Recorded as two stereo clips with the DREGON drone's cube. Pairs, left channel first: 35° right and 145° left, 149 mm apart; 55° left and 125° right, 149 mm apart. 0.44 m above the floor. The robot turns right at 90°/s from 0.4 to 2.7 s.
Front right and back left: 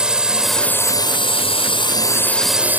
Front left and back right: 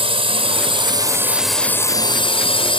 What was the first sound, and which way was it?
A drone, 135° right.